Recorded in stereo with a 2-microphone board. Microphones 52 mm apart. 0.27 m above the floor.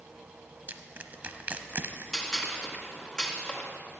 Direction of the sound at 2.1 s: 15° left (ahead or behind).